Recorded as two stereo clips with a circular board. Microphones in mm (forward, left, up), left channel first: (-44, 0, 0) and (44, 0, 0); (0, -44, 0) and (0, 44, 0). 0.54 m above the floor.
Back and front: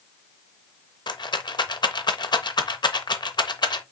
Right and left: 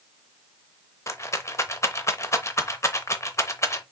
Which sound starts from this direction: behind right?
A rattle, at 1.1 s.